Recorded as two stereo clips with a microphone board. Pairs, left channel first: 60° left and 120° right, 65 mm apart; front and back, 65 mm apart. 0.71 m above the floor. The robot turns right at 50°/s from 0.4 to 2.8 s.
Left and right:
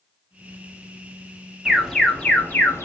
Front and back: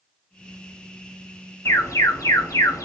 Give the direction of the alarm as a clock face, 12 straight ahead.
1 o'clock.